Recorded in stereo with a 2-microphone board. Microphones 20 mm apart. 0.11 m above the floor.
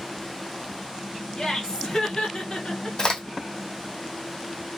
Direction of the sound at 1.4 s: 30° left (ahead or behind).